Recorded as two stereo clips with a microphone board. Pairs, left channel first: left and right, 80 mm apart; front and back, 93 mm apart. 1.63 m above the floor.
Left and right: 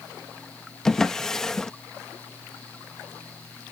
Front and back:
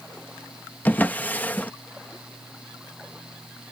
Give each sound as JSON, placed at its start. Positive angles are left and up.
{"t": 0.8, "sound": "a drawer", "azimuth_deg": 15}